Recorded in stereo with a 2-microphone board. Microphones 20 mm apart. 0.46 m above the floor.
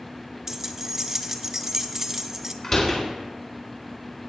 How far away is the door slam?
About 3 m.